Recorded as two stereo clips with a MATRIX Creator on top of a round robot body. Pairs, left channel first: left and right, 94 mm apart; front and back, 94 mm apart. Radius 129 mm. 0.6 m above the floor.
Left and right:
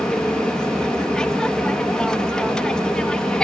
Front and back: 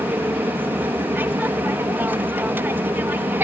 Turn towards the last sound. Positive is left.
turn(degrees=160)